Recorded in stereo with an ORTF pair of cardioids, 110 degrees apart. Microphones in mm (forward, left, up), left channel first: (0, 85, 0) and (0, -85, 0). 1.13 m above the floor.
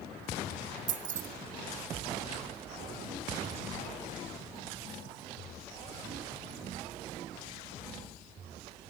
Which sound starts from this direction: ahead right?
Keys jangling, at 0.9 s.